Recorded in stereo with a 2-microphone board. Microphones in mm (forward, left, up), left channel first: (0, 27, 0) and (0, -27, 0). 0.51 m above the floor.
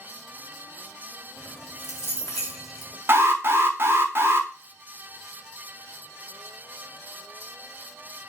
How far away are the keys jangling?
About 1.9 m.